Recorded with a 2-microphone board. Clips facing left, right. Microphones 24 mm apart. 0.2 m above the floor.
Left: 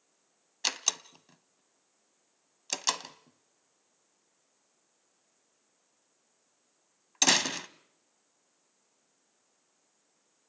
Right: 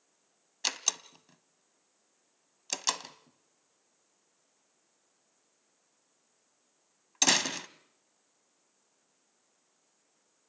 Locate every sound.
0.6 s a door slam: 5° left (ahead or behind), 0.7 m